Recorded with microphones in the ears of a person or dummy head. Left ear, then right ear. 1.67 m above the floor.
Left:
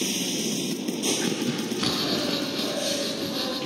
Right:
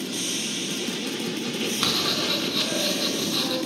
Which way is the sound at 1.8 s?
45° right (ahead or behind).